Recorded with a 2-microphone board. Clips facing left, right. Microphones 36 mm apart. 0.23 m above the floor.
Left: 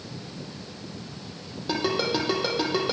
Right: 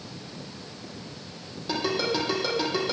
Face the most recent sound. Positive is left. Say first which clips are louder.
# left 1 dB
turn(degrees=10)  # may be behind; listen again after turning